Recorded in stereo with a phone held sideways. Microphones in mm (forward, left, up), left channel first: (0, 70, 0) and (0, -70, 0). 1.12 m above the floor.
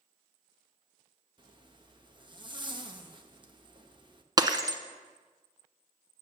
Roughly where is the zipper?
Right.